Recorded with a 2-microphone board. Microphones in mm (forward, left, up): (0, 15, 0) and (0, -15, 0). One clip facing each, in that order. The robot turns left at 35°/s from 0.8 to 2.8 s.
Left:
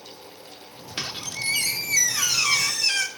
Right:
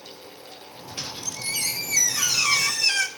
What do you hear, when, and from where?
1.0 s a squeak: 60° left, 1.8 m; by 3.1 s 5° right, 1.8 m